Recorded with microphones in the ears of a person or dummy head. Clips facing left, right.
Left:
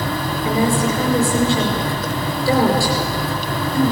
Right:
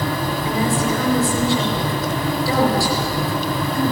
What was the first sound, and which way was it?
A woman speaking, 30° left (ahead or behind).